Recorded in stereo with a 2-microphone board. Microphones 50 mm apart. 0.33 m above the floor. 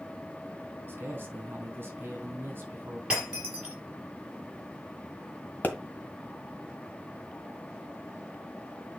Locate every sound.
0.9 s a man speaking: 45° right (ahead or behind), 3 m
3.1 s breaking glass: 20° right (ahead or behind), 4 m
5.6 s a pop: 35° left (ahead or behind), 1.6 m